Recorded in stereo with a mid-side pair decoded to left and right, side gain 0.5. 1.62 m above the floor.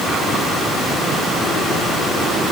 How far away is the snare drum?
No snare drum in this recording.